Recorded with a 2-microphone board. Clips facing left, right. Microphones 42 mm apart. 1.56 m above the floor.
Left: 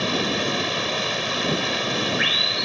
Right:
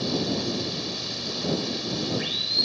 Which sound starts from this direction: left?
Running water, at 0.0 s.